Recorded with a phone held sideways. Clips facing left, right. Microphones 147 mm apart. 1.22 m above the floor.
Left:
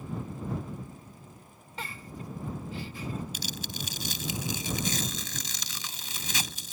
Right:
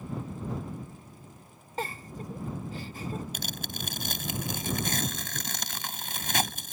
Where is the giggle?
45° right (ahead or behind).